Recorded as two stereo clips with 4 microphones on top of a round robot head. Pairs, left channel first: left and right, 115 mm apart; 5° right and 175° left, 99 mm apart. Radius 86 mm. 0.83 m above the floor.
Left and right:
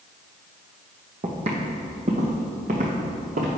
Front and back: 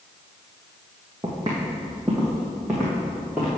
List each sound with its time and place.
1.2 s footsteps: 120° right, 1.7 m; by 3.5 s 100° right, 2.5 m